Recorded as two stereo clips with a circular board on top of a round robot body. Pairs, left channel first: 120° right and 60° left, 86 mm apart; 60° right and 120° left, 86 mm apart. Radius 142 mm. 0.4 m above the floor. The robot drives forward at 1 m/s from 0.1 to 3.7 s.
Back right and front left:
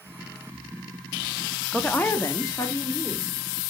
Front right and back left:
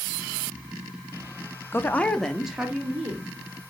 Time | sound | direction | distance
1.7 | a woman speaking | 45° right | 0.8 m